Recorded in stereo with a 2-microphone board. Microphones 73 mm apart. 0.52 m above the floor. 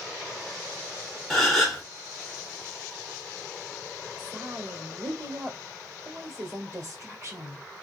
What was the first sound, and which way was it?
A gasp, centre (ahead or behind).